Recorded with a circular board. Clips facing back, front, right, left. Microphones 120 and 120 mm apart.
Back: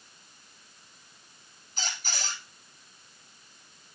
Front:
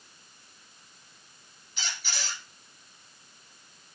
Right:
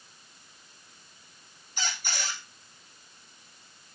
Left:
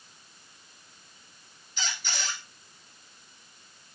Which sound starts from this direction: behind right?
A squeak, at 1.8 s.